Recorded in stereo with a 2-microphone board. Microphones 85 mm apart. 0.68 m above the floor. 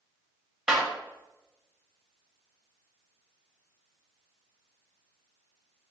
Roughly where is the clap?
Centre.